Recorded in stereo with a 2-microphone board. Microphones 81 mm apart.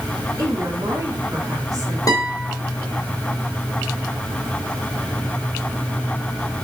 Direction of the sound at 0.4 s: 50° right (ahead or behind).